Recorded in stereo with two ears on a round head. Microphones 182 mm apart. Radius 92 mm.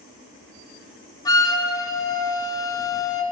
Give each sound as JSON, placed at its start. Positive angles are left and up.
{"t": 1.2, "sound": "a flute", "side_deg": 15, "distance_m": 1.0}